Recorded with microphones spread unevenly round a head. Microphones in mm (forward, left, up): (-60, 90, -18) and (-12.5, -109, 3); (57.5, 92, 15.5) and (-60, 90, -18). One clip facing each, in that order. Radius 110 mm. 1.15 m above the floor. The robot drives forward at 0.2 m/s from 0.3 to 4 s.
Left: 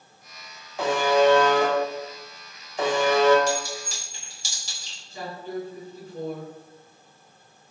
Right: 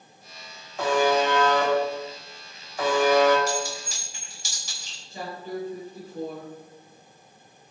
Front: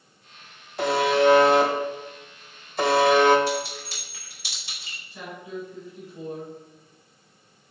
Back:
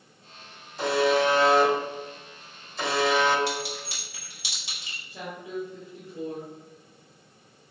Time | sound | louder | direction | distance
0.8 | a buzzer | left 2 dB, front 2 dB | 20° left | 1.1 m
3.5 | a clink | left 2 dB, front 4 dB | 165° left | 1.6 m
5.1 | a woman speaking | left 1 dB, back 1 dB | 125° right | 1.5 m